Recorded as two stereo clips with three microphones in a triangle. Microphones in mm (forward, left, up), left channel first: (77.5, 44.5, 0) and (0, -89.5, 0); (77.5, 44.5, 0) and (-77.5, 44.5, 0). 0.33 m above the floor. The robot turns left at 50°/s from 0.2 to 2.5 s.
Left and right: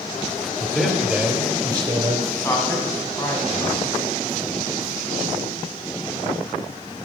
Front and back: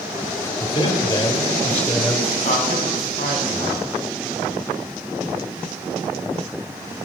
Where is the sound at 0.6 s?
15° right, 1.6 m; by 2.2 s 100° right, 1.6 m.